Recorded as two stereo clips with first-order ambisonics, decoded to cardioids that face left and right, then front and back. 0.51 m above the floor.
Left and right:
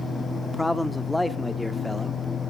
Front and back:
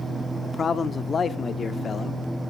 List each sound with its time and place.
0.4 s a man speaking: 15° left, 0.6 m